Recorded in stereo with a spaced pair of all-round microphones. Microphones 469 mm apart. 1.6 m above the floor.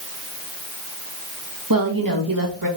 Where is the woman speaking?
45° right (ahead or behind), 2.0 m.